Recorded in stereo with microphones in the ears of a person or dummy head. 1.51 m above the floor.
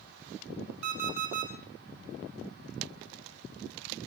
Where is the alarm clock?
55° right (ahead or behind), 4 m.